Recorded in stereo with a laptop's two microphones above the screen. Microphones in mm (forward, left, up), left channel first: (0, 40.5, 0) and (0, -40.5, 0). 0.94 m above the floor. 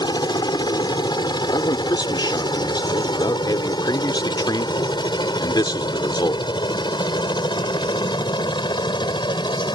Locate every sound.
0.0 s a helicopter: 65° left (ahead or behind); by 9.8 s 70° left (ahead or behind)
1.5 s a man speaking: 65° left (ahead or behind)